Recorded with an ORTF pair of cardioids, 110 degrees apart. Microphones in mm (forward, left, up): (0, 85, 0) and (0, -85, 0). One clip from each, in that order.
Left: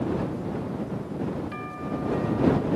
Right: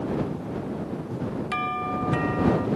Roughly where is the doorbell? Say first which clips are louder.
Right 7 dB; ahead right.